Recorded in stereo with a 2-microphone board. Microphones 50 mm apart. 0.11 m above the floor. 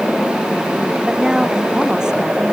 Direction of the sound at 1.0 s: 15° right (ahead or behind).